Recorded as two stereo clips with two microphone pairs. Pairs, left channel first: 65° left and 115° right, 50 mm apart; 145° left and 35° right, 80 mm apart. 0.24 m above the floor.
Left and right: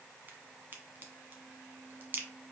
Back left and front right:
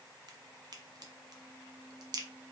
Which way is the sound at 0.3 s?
65° right.